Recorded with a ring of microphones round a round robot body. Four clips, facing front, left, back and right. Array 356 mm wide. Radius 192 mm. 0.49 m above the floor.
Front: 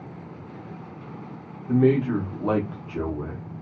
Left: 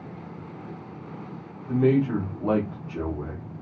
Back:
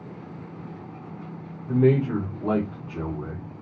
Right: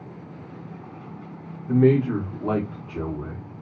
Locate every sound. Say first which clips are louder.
1.7 s a man speaking: right 3 dB, front 1 dB; 65° right, 1.1 m; by 3.4 s 20° left, 1.5 m